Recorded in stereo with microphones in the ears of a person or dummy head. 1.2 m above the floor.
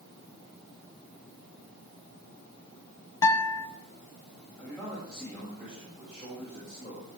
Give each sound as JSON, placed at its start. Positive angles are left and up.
{"t": 3.2, "sound": "a guitar", "side_deg": 20, "distance_m": 1.8}
{"t": 4.6, "sound": "a man speaking", "side_deg": 20, "distance_m": 7.5}